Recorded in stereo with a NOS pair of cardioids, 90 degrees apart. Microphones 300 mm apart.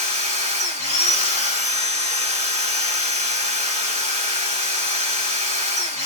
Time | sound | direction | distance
0.0 | a machine running | 20° left | 2.0 m